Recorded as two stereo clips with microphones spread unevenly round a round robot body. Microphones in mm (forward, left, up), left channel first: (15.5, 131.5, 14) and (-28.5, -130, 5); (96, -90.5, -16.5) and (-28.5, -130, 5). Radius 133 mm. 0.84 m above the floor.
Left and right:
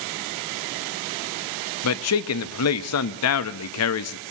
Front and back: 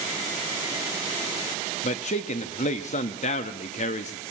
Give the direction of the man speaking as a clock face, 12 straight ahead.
10 o'clock.